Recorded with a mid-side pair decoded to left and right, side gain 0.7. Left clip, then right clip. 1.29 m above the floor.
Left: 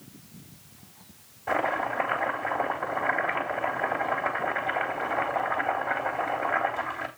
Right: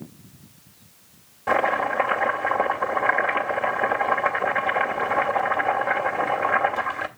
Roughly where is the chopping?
Ahead right.